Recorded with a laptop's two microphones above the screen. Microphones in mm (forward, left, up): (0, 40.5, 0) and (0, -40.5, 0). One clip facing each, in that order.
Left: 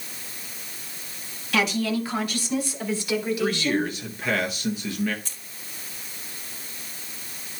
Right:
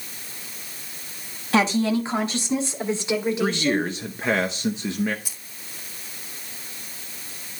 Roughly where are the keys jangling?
Centre.